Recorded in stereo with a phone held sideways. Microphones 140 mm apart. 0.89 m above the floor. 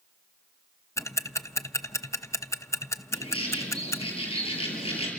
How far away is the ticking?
About 0.9 m.